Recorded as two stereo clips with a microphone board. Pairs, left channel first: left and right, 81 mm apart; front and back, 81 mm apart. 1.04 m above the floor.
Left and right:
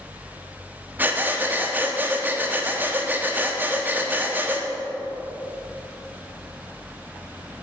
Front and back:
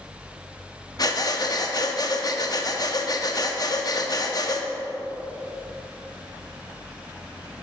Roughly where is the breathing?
Ahead right.